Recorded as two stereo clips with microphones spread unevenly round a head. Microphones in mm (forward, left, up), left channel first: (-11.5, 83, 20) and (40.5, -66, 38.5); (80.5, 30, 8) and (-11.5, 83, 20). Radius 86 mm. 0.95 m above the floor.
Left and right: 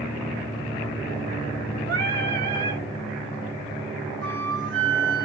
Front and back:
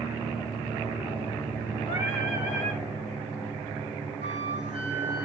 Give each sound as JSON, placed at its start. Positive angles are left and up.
{"t": 1.9, "sound": "singing", "azimuth_deg": -50, "distance_m": 3.0}
{"t": 4.2, "sound": "a flute", "azimuth_deg": -70, "distance_m": 5.5}